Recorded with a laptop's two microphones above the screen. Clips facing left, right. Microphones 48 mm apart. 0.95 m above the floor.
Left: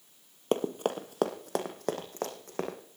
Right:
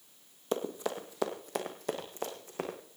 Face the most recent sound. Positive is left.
turn(degrees=55)  # may be behind; listen again after turning